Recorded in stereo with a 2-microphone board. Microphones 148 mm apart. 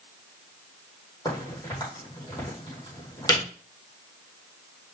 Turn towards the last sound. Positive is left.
turn(degrees=25)  # may be behind; listen again after turning